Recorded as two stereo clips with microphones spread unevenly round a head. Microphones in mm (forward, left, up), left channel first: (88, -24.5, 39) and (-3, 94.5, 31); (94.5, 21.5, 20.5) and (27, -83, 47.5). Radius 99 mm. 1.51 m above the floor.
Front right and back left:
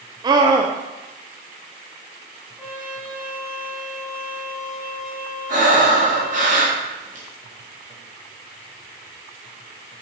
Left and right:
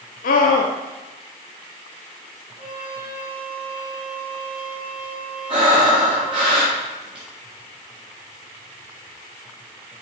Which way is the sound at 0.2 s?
65° left.